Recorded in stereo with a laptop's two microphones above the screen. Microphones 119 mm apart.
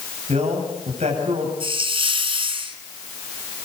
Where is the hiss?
50° right (ahead or behind), 3 m.